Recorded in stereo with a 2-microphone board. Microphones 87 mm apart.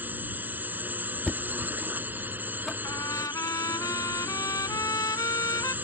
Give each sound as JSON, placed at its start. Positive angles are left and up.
{"t": 0.0, "sound": "a drone", "side_deg": -20}
{"t": 1.3, "sound": "knocking", "side_deg": 5}
{"t": 2.8, "sound": "a trumpet", "side_deg": 40}